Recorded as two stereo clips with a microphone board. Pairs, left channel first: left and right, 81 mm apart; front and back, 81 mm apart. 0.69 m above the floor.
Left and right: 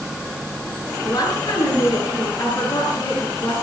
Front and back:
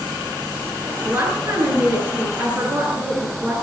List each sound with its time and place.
1.0 s a woman speaking: 130° left, 8 m